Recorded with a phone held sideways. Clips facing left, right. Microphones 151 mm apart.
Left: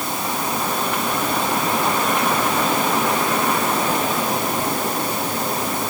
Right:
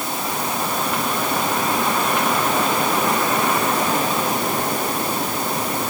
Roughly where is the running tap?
I don't hear a running tap.